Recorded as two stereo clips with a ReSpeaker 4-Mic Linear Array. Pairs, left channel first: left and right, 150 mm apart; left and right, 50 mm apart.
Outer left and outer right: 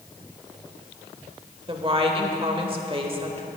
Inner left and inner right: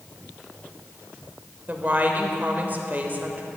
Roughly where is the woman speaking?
Right.